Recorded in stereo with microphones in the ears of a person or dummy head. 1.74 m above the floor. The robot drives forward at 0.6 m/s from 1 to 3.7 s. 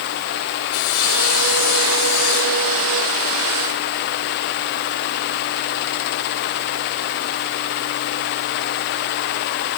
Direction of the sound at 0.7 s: 75° left (ahead or behind).